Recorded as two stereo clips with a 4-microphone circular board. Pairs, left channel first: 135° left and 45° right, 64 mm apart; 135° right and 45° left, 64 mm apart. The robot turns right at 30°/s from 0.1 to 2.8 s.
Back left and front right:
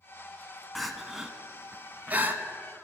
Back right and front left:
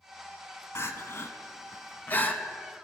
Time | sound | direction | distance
0.8 | crying | 135° right | 0.5 m